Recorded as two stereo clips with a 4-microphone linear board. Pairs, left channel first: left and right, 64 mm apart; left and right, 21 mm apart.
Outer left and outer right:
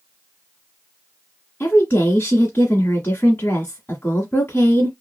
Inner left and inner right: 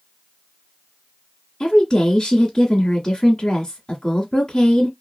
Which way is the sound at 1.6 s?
25° left (ahead or behind).